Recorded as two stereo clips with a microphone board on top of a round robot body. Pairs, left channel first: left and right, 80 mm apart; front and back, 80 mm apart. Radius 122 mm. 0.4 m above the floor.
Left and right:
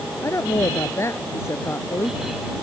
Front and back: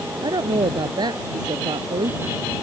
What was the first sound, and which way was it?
A woman speaking, 145° left.